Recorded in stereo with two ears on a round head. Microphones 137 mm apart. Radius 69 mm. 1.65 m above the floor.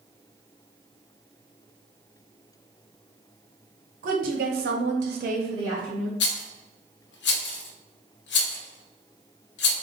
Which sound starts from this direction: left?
A rattle, at 6.2 s.